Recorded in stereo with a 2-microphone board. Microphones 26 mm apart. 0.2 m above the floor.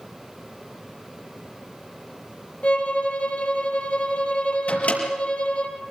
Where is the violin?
55° left (ahead or behind), 3.5 m.